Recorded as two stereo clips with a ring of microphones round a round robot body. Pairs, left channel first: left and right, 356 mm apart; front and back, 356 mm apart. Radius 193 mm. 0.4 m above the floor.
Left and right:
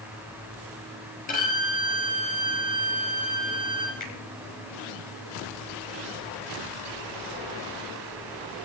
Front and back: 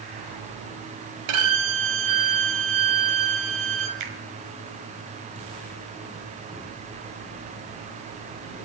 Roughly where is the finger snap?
Behind.